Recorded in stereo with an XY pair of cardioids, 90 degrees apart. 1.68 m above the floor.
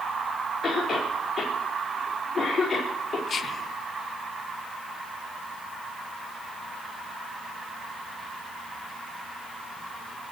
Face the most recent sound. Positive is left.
turn(degrees=50)